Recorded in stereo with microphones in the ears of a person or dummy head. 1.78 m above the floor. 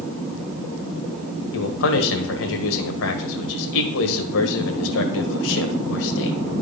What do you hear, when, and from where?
1.5 s a man speaking: 75° left (ahead or behind), 1.7 m